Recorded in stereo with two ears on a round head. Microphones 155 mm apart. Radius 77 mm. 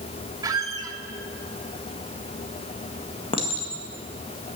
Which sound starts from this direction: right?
A squeak, at 0.4 s.